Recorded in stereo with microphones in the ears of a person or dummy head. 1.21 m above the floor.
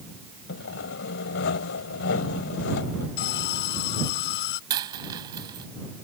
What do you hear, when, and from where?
0.5 s sawing: 60° left (ahead or behind)
3.2 s an alarm: 65° left (ahead or behind)
4.7 s a dropped coin: 20° right (ahead or behind)